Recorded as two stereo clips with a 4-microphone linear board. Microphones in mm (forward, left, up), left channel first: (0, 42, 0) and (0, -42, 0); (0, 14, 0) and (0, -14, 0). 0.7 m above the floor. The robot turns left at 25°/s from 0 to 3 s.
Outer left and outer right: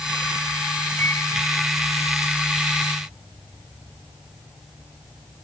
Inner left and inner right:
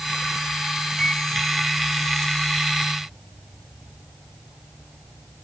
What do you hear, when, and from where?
1.0 s a microwave: 25° left (ahead or behind); by 1.3 s 30° left (ahead or behind)